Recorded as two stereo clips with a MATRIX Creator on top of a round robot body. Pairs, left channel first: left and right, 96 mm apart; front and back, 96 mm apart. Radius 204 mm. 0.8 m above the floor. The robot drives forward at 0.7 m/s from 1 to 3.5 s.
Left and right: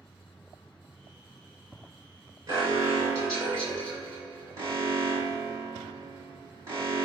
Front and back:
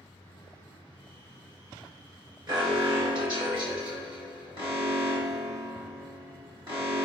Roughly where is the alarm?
Behind right.